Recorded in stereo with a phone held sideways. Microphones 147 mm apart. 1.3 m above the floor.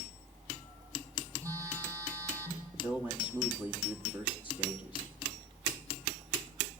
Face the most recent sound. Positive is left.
turn(degrees=-15)  # may be behind; listen again after turning